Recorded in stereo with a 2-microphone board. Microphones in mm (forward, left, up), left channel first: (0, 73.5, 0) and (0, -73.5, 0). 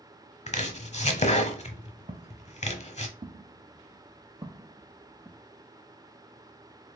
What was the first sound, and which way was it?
Chopping, 50° left (ahead or behind).